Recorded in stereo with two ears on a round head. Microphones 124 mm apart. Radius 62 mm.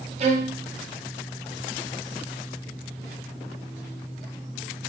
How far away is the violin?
About 0.5 m.